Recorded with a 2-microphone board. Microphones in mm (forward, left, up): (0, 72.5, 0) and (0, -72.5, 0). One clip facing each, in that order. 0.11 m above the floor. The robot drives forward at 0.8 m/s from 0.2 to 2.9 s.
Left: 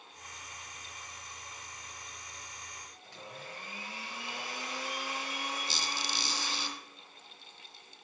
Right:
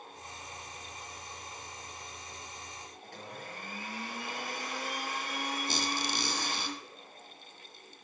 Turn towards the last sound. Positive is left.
turn(degrees=-65)  # may be behind; listen again after turning